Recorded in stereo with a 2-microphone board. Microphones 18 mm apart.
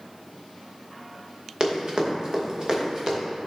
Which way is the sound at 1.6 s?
40° right (ahead or behind).